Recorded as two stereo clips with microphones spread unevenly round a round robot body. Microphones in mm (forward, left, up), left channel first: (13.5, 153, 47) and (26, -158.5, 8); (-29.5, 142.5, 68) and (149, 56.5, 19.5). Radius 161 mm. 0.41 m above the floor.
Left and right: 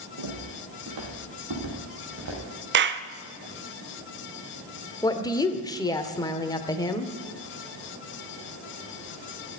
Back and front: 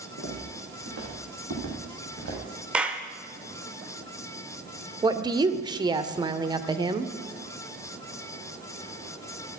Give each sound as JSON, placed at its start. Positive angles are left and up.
{"t": 0.2, "sound": "footsteps", "azimuth_deg": -55, "distance_m": 5.5}
{"t": 2.7, "sound": "a clap", "azimuth_deg": -90, "distance_m": 0.8}
{"t": 5.0, "sound": "a woman speaking", "azimuth_deg": 10, "distance_m": 1.3}